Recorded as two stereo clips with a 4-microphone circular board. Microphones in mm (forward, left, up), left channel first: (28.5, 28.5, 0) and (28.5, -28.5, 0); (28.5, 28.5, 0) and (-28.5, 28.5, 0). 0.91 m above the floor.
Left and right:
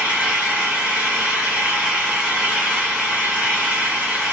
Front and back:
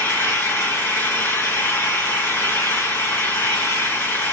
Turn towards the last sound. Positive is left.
turn(degrees=-25)